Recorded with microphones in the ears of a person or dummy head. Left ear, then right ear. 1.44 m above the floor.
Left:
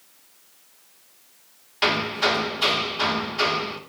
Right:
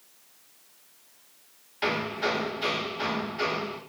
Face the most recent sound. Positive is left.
turn(degrees=25)  # may be behind; listen again after turning